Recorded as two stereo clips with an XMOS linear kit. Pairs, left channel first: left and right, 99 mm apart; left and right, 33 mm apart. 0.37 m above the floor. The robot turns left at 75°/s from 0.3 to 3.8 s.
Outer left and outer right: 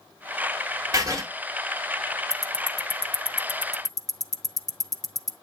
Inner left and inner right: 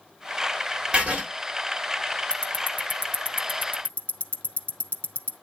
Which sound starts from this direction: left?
Ticking, at 2.3 s.